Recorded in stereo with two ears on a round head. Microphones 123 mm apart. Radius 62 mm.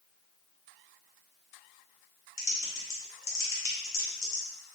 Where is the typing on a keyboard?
20° left (ahead or behind), 0.7 m.